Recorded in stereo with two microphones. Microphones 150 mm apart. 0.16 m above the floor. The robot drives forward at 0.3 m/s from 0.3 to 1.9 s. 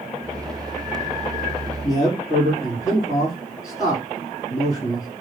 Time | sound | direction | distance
1.8 | a man speaking | 25° left (ahead or behind) | 2.5 m